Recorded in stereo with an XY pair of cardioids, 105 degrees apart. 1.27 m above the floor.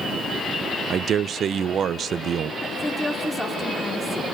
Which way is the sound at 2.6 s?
5° left.